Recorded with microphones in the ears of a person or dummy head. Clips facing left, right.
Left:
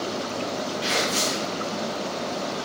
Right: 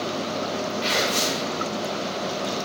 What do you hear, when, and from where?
0.8 s tearing paper: centre (ahead or behind), 1.1 m